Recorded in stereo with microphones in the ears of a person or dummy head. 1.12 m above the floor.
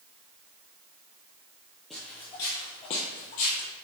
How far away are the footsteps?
About 1.1 m.